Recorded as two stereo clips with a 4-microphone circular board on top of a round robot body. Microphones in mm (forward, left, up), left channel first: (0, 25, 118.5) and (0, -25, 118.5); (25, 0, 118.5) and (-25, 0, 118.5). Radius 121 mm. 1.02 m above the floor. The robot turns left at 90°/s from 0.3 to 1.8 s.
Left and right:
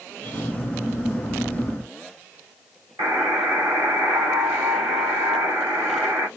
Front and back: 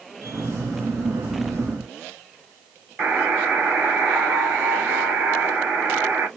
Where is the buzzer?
115° right, 2.5 m.